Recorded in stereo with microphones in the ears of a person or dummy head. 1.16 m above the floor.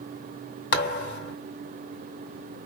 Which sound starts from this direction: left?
A thud, at 0.7 s.